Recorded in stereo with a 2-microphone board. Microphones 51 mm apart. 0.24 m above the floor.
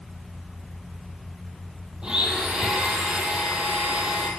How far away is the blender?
About 1.2 m.